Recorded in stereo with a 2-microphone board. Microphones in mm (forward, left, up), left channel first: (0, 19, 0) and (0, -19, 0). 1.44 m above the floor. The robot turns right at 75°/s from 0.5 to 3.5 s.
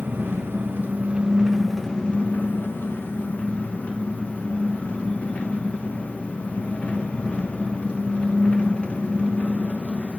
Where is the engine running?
90° right, 0.9 m; by 10.2 s 135° left, 0.9 m.